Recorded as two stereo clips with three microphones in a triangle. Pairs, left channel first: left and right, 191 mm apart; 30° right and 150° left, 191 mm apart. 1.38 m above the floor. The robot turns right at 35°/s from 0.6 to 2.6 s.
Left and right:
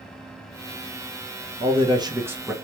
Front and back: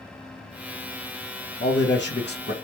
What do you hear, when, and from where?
1.6 s a man speaking: 35° right, 0.9 m; by 2.5 s 5° right, 0.9 m